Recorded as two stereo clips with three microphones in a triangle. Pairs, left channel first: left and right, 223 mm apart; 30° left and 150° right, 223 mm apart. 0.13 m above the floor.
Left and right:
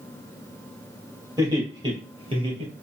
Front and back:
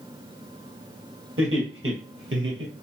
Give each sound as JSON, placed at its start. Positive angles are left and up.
{"t": 1.4, "sound": "laughter", "azimuth_deg": -165, "distance_m": 3.0}